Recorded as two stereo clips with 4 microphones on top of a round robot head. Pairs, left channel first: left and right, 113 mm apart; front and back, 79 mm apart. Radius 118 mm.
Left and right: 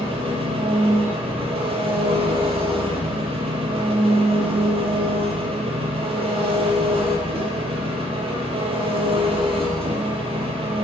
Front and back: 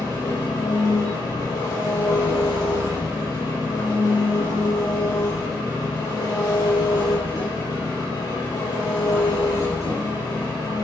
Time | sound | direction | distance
0.0 | an engine running | 55° right | 5.5 m